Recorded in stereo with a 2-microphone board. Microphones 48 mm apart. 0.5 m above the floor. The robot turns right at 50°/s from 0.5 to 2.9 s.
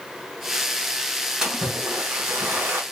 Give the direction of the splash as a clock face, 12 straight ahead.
5 o'clock.